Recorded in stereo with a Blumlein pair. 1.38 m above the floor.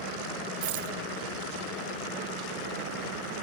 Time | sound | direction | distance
0.6 | a rattle | 50° right | ?